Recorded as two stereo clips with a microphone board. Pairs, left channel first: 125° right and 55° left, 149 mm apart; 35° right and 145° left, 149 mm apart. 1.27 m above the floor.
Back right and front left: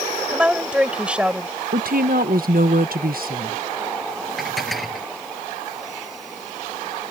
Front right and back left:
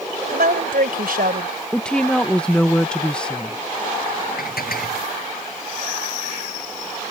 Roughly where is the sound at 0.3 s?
Behind left.